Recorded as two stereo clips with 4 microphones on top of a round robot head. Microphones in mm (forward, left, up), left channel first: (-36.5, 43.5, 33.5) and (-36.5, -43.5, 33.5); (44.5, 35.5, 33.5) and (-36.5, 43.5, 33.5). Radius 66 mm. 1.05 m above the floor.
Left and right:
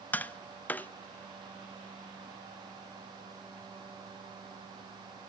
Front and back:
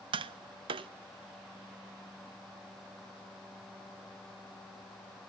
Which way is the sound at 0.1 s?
160° left.